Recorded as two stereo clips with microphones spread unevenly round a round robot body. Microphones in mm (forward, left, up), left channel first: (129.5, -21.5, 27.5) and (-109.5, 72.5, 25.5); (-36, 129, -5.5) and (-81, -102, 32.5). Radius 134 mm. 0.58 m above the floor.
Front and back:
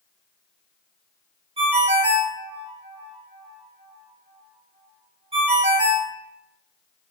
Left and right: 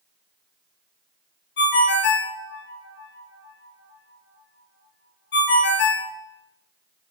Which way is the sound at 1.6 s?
95° left.